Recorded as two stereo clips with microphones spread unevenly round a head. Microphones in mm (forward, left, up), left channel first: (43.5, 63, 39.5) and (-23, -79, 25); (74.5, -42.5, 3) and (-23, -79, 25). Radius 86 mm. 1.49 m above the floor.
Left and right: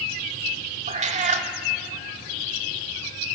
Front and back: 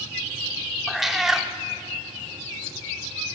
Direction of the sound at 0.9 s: 95° right.